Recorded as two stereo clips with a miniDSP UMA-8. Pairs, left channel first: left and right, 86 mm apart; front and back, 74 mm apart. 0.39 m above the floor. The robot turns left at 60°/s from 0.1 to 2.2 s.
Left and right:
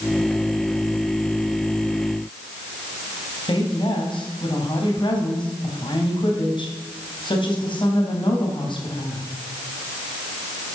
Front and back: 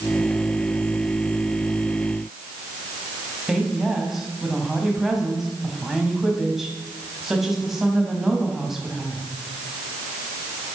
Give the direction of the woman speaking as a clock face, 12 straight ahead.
9 o'clock.